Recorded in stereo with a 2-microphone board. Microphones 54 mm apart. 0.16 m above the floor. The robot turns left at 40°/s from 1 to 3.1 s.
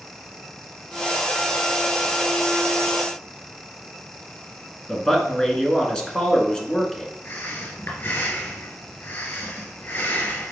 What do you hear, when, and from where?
4.9 s a man speaking: 15° left (ahead or behind), 1.8 m
7.2 s breathing: 45° left (ahead or behind), 3 m